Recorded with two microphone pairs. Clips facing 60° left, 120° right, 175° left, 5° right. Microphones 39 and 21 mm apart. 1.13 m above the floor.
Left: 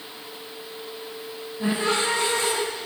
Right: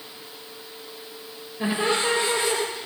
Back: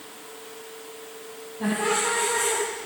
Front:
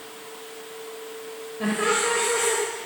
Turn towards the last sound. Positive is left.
turn(degrees=-60)